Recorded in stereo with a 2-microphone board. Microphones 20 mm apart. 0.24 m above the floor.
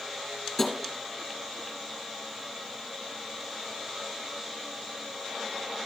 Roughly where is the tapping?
Centre.